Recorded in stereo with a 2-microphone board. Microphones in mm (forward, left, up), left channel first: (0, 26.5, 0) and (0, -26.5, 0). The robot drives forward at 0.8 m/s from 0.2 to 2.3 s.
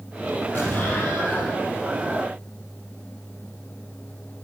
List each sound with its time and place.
0.6 s an explosion: 35° left (ahead or behind), 4.5 m; by 1.6 s 40° left (ahead or behind), 4 m